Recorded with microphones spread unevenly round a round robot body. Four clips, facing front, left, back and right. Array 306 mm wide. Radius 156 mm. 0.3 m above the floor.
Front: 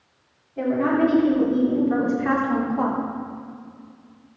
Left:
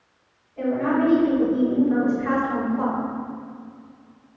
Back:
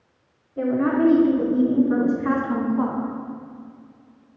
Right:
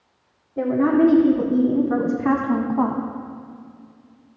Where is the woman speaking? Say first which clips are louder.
Right 4 dB, even; 105° right, 4 m; by 3.0 s 100° right, 2.5 m.